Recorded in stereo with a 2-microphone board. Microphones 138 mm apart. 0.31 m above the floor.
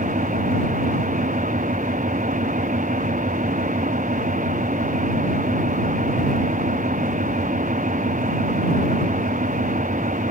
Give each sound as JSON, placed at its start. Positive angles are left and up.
{"t": 0.0, "sound": "an engine running", "side_deg": -75}